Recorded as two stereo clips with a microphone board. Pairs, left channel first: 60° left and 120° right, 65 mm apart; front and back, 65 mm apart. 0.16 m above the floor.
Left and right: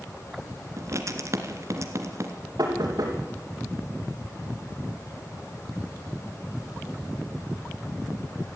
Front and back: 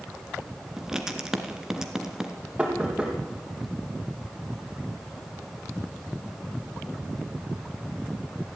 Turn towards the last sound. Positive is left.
turn(degrees=-105)